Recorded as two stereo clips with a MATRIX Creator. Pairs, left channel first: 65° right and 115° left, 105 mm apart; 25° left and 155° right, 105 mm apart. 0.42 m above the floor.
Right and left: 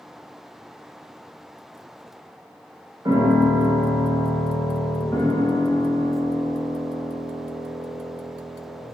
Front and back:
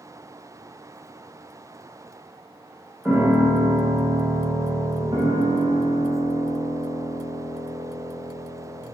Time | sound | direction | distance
3.0 | a piano | 120° left | 1.4 m
5.1 | a piano | 125° right | 0.5 m